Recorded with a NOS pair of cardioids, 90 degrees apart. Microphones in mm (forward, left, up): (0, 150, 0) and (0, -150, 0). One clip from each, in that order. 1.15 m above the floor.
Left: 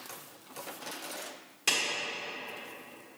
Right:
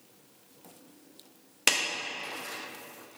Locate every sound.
1.7 s a clap: 60° right, 1.4 m